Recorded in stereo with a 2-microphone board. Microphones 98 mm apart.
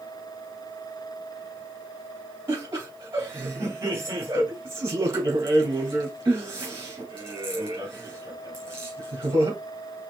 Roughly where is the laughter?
Right.